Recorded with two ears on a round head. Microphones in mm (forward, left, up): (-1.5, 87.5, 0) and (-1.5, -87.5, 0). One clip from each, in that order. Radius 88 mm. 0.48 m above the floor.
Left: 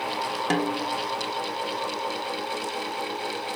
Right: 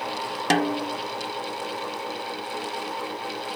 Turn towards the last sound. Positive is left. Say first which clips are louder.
# right 5 dB
turn(degrees=-30)  # may be behind; listen again after turning